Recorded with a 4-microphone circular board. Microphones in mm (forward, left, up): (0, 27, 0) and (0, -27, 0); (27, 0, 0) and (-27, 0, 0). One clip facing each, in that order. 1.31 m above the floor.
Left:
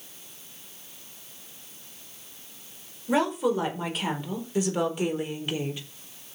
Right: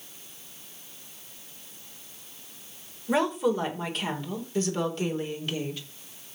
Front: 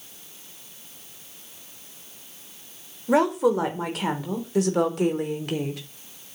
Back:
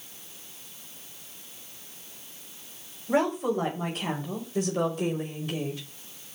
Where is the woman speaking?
Straight ahead, 4.5 m; by 5.8 s 20° left, 3.5 m.